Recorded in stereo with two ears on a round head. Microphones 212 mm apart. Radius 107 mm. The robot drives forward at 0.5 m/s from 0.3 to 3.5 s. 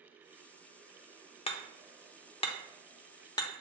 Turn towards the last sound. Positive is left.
turn(degrees=20)  # may be behind; listen again after turning